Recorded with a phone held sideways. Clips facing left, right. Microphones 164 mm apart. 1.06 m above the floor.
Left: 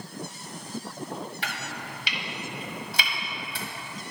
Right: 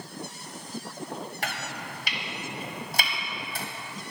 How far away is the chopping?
About 1.1 m.